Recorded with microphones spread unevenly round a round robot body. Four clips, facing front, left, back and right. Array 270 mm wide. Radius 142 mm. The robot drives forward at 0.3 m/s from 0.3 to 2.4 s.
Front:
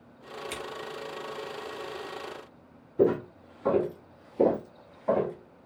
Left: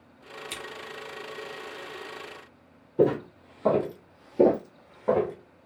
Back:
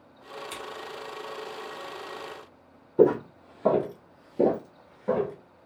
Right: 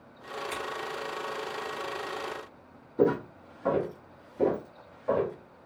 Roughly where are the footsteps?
Behind.